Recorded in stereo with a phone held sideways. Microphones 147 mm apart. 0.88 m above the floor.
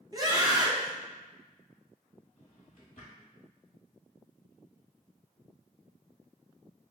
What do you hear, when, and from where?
0.1 s a scream: 25° right (ahead or behind), 0.9 m
2.4 s a drawer: 65° left (ahead or behind), 1.2 m